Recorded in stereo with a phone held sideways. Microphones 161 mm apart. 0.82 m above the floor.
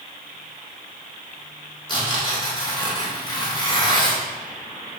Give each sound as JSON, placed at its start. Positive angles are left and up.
{"t": 1.9, "sound": "tearing paper", "side_deg": 30, "distance_m": 3.0}